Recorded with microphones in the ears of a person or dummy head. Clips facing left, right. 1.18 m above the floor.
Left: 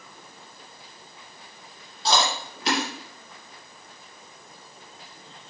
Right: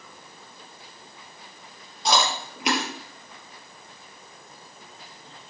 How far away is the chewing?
About 3.5 m.